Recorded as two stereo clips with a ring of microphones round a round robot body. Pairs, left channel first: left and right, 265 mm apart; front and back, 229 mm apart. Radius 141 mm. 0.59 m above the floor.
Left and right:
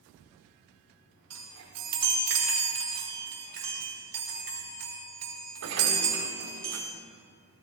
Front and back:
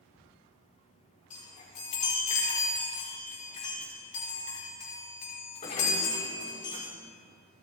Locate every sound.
1.3 s a chime: 65° right, 5 m